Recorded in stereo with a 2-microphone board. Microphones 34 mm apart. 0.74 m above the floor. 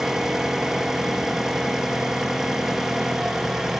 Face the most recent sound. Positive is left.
turn(degrees=-15)  # may be behind; listen again after turning